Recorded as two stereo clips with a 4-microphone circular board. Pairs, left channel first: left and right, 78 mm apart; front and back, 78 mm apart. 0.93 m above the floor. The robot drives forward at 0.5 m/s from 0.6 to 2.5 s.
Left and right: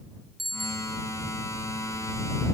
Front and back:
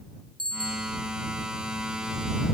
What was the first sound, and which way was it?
A bicycle bell, straight behind.